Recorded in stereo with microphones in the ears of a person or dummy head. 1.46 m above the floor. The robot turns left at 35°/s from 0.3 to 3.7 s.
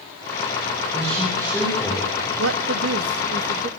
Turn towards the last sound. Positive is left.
turn(degrees=-145)